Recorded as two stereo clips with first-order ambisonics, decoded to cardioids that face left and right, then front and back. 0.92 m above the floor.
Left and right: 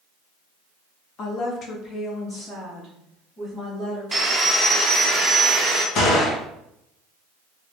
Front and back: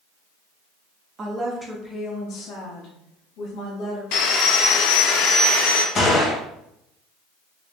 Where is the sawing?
10° right, 0.6 m.